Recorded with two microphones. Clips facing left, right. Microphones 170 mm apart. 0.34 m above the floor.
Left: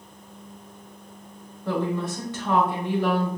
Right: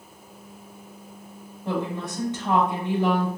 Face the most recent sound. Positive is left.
turn(degrees=-20)  # may be behind; listen again after turning